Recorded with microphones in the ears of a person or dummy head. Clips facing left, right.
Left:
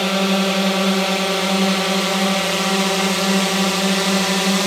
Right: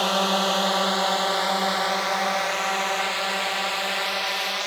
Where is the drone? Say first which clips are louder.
Left 5 dB; 25° left (ahead or behind); by 4.7 s 60° left (ahead or behind).